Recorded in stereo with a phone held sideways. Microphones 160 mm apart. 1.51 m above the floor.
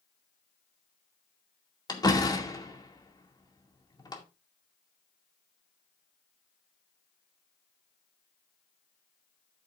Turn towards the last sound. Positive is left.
turn(degrees=25)  # may be behind; listen again after turning